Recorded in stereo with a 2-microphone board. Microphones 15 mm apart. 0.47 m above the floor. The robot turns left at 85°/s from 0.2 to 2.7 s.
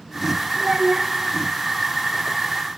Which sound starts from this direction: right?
A child speaking, at 0.6 s.